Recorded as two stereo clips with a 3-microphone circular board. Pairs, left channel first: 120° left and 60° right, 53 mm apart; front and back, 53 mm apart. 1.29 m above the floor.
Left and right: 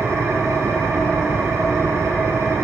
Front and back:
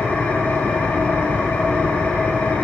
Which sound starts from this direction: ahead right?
An engine running, at 0.0 s.